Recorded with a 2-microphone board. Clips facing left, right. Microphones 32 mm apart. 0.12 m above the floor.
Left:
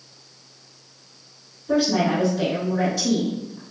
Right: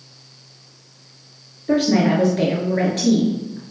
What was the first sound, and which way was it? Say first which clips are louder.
A woman speaking: right 3 dB; 50° right (ahead or behind).